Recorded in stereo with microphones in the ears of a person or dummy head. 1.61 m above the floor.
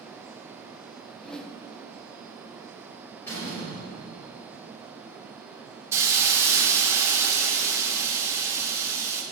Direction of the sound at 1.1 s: 10° left (ahead or behind).